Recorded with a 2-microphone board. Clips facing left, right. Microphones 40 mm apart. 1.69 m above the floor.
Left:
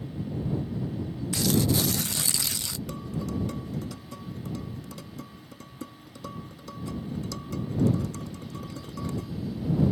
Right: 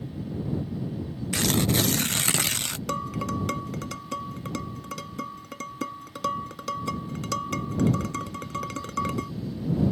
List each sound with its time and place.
1.3 s tearing paper: 55° right (ahead or behind)
2.9 s dishes clattering: 85° right